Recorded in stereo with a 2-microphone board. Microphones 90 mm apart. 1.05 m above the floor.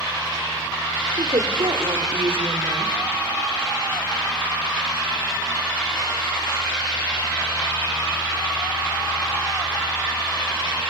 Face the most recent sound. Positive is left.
turn(degrees=-80)